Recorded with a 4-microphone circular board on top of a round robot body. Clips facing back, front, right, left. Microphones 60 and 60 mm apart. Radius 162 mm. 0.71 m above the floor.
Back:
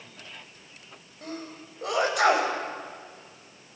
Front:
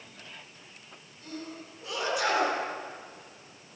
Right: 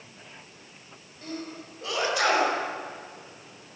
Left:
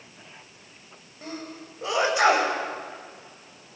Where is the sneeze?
155° left, 5.5 m.